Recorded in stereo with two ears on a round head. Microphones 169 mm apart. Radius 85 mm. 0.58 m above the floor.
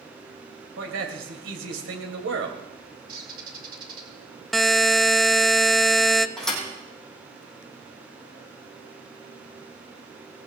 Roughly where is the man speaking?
Right.